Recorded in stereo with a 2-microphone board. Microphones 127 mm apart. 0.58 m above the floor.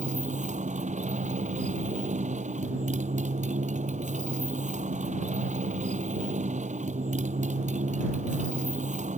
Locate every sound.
0.0 s a motorcycle: 70° right (ahead or behind)